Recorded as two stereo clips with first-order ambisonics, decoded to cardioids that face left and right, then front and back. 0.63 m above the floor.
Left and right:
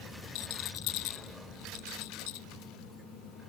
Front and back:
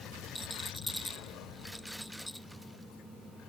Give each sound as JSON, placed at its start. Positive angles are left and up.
{"t": 0.3, "sound": "a rattle", "azimuth_deg": 90}